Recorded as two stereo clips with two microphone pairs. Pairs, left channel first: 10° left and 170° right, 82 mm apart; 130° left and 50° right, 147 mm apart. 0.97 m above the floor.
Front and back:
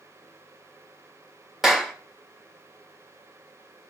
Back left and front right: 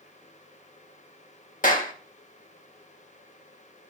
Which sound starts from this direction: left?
A clap, at 1.6 s.